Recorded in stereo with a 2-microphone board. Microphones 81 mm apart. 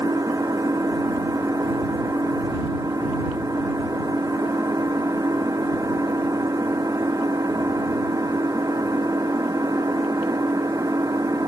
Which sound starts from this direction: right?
An engine running, at 0.0 s.